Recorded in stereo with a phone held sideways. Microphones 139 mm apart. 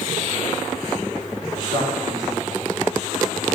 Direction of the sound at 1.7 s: 55° left (ahead or behind).